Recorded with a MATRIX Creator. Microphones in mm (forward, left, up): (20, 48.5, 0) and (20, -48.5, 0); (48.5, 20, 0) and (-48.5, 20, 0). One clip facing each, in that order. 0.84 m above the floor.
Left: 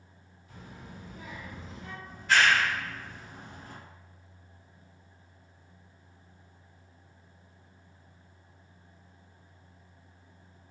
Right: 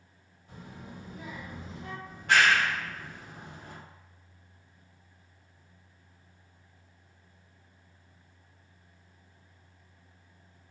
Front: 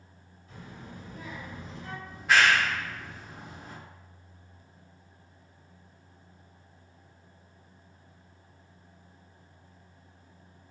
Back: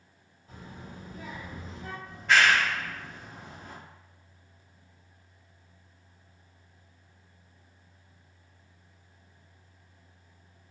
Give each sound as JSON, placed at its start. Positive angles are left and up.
{"t": 0.5, "sound": "a child speaking", "azimuth_deg": -125, "distance_m": 1.4}
{"t": 2.0, "sound": "a clap", "azimuth_deg": -80, "distance_m": 1.0}